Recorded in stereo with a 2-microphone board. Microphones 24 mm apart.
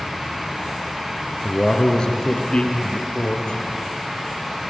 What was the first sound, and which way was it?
A man speaking, 20° left (ahead or behind).